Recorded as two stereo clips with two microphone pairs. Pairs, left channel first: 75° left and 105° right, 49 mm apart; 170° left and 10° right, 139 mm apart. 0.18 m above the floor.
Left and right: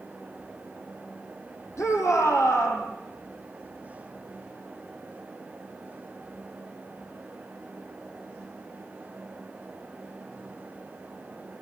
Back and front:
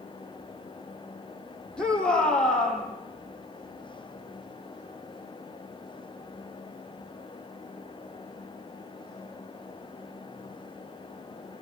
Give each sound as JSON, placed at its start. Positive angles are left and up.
{"t": 1.8, "sound": "a shout", "azimuth_deg": 85, "distance_m": 6.0}